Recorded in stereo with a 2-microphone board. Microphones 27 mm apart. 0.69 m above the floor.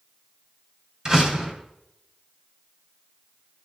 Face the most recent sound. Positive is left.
turn(degrees=-25)  # may be behind; listen again after turning